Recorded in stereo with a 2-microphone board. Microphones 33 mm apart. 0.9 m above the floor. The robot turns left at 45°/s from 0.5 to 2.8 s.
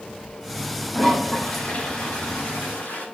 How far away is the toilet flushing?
About 6 m.